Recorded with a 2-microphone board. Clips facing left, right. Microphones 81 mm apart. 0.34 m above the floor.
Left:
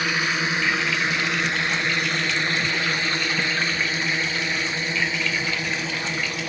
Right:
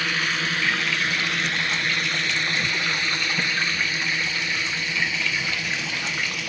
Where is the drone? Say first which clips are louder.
Left 2 dB; 15° left (ahead or behind); by 6.5 s 35° left (ahead or behind).